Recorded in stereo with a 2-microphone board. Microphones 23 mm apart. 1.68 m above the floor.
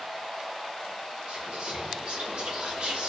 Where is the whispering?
55° right (ahead or behind), 1.3 m.